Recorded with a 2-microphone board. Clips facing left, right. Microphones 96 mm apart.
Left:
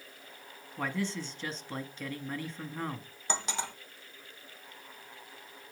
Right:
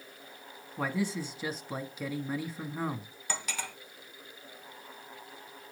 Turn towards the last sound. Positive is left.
turn(degrees=25)  # may be behind; listen again after turning